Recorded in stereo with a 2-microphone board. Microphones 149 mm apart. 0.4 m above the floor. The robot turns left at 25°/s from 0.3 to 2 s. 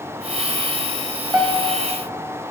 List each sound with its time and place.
1.3 s a piano: 15° right (ahead or behind), 1.8 m; by 1.9 s 25° right (ahead or behind), 1.8 m